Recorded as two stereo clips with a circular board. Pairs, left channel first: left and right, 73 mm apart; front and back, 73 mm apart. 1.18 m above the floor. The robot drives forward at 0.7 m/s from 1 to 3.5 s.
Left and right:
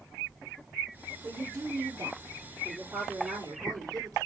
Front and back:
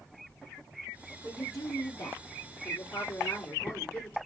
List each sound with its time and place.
1.2 s a woman speaking: 35° right, 2.5 m; by 4.2 s 65° right, 1.7 m